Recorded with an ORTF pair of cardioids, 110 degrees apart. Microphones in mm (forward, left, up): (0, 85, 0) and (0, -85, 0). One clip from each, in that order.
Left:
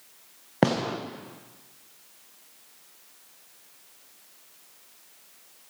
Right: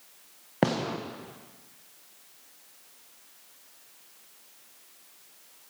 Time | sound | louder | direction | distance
0.6 | a gunshot | left 3 dB | 10° left | 1.0 m